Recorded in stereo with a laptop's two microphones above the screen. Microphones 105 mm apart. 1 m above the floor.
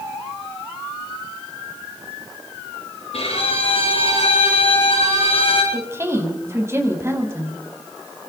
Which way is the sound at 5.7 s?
25° right (ahead or behind).